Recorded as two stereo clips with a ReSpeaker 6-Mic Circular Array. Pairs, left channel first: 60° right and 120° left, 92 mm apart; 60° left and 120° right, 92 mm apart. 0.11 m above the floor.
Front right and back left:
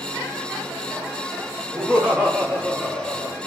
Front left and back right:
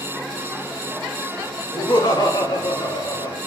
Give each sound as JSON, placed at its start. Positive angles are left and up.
{"t": 1.7, "sound": "laughter", "azimuth_deg": 45, "distance_m": 7.5}